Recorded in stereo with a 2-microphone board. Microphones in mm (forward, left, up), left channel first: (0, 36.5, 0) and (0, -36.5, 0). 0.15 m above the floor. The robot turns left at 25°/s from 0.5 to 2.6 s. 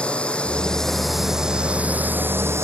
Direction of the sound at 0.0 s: 15° left.